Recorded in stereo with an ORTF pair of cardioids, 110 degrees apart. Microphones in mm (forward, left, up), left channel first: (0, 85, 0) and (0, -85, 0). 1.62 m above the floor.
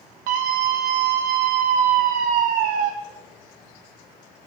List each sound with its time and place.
0.3 s a scream: 65° right, 0.5 m